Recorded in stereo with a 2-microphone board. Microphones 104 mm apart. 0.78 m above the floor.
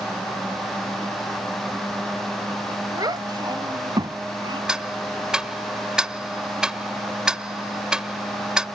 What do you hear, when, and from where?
3.0 s a child speaking: 40° right (ahead or behind); by 4.6 s 45° right (ahead or behind)
4.7 s ticking: 5° right (ahead or behind)